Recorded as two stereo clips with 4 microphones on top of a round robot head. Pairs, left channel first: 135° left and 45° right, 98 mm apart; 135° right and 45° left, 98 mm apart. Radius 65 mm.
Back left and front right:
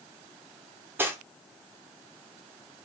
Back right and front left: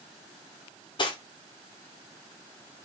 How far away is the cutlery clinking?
About 0.8 m.